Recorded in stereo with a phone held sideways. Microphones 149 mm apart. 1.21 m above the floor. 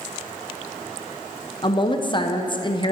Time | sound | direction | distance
1.6 | a woman speaking | 35° left (ahead or behind) | 0.8 m